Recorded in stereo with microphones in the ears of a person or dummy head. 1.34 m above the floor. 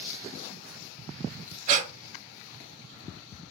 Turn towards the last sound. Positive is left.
turn(degrees=-45)  # may be behind; listen again after turning